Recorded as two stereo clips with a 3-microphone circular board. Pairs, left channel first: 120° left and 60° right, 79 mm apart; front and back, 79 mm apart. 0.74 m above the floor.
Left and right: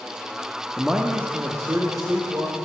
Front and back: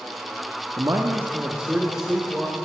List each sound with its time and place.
0.8 s a man speaking: 145° right, 0.9 m; by 2.6 s 95° right, 2.5 m